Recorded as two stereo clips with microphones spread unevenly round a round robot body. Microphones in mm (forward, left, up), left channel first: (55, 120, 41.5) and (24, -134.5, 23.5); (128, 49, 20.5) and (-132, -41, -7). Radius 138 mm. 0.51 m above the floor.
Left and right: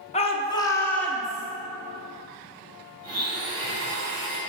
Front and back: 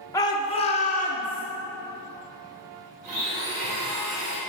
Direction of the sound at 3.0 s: 130° right.